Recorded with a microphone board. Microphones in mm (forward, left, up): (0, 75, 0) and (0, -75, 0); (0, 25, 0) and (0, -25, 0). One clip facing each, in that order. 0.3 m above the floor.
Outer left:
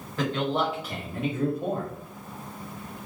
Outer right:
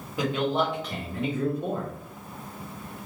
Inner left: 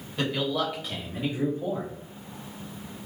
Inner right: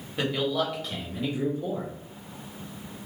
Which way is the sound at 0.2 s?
15° right (ahead or behind).